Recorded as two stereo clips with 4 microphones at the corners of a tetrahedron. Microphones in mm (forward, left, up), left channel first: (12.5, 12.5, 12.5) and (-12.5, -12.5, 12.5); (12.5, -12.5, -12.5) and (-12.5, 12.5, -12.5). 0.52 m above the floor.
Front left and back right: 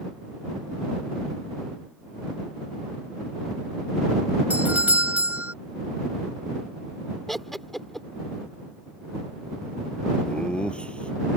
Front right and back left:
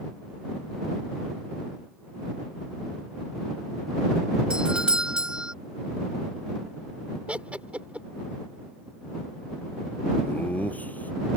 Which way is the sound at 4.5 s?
165° right.